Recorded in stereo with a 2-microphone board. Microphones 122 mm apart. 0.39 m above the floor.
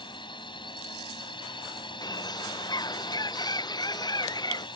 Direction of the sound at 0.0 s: 40° left (ahead or behind).